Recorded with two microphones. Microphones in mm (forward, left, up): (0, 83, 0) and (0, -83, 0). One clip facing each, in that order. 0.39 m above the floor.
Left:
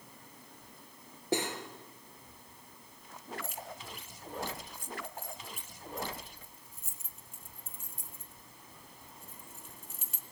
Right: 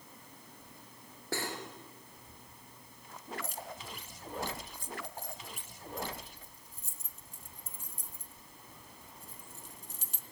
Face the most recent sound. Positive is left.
turn(degrees=-40)  # may be behind; listen again after turning